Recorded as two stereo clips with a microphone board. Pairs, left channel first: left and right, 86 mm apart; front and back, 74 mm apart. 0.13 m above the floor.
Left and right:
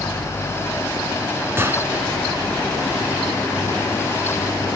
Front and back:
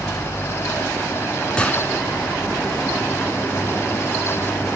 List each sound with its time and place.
1.6 s a gunshot: 65° right, 1.7 m